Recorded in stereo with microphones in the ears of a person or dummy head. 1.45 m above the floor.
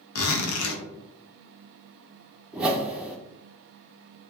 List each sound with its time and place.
0.1 s a zipper: 75° left (ahead or behind), 0.6 m
2.5 s a whoosh: 5° right (ahead or behind), 0.5 m